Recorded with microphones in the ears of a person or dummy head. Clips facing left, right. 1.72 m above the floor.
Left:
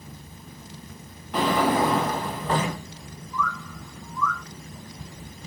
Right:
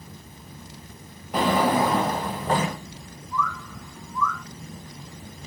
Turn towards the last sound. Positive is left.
turn(degrees=-45)  # may be behind; listen again after turning